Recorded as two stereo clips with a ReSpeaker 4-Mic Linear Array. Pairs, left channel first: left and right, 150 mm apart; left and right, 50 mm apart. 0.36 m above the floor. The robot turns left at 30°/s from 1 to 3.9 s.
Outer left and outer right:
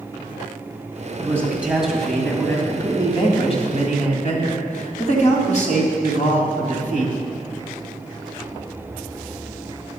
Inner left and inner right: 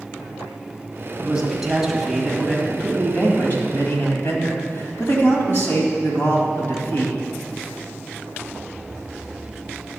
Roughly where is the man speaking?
Behind.